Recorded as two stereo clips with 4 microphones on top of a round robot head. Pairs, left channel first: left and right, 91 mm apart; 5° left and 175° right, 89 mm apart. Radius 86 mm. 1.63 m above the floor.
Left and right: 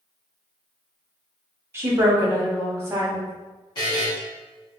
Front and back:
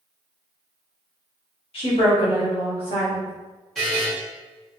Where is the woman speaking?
25° right, 1.3 m.